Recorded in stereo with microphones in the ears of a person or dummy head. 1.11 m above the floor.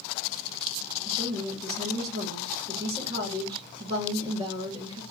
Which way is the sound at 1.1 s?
20° right (ahead or behind).